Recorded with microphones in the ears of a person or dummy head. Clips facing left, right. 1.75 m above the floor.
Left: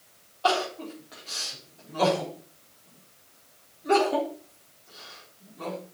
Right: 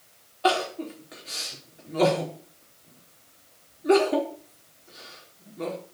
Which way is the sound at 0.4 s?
30° right (ahead or behind).